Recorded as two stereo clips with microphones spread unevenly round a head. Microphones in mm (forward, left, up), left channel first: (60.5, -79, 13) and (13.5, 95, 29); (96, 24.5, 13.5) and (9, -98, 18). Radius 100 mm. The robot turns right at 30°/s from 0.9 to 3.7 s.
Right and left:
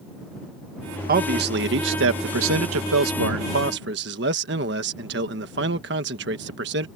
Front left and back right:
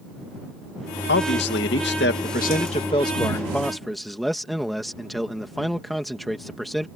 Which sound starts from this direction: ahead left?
A man speaking, at 1.1 s.